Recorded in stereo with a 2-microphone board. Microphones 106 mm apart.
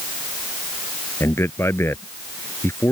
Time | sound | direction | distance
1.2 | a man speaking | 20° left (ahead or behind) | ?